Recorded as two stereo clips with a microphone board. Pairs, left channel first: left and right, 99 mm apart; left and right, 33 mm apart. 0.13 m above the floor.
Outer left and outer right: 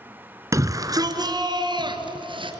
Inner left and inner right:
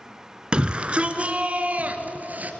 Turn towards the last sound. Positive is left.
turn(degrees=-55)  # may be behind; listen again after turning